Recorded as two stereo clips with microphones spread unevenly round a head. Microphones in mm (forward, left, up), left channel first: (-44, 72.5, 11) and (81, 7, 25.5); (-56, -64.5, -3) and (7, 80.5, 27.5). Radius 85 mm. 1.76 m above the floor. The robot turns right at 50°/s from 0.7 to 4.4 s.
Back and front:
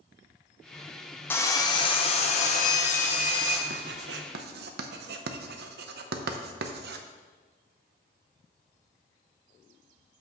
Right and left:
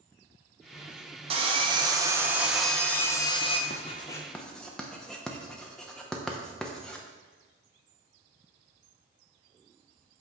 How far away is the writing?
About 0.7 m.